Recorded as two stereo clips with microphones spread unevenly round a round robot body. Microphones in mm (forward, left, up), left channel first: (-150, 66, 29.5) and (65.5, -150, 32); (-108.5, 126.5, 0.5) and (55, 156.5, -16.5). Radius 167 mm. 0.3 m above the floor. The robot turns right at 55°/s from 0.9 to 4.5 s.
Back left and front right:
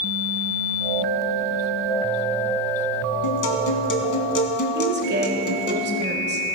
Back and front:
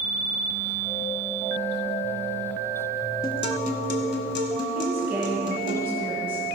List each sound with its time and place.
3.2 s a guitar: 120° left, 1.7 m; by 5.8 s 170° right, 1.7 m
4.8 s a woman speaking: 65° right, 1.6 m